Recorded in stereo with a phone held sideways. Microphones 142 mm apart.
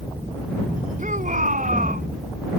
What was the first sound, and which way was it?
A shout, 65° right (ahead or behind).